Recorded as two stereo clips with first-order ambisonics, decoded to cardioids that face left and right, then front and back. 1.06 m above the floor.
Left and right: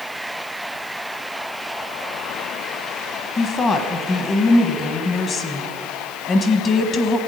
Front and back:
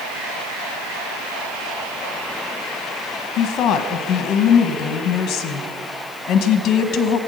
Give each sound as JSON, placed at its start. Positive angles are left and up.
{"t": 3.4, "sound": "a woman speaking", "azimuth_deg": 30, "distance_m": 1.1}